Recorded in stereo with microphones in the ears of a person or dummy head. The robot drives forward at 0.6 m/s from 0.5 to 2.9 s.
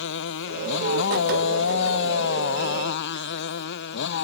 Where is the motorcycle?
70° left (ahead or behind); by 4.2 s 65° left (ahead or behind).